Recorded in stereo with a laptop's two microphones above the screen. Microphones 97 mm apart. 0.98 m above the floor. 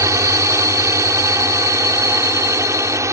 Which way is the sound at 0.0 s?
30° right (ahead or behind).